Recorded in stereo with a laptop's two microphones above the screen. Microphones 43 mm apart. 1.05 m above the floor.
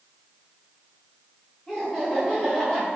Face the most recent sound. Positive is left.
turn(degrees=15)  # may be behind; listen again after turning